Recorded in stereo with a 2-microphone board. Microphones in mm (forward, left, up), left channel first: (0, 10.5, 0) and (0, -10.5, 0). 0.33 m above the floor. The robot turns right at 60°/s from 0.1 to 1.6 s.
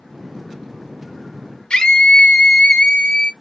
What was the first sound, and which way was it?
A scream, 45° left (ahead or behind).